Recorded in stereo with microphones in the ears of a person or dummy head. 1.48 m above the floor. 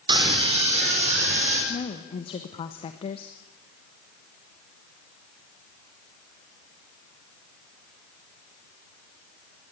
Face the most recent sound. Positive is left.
turn(degrees=30)  # may be behind; listen again after turning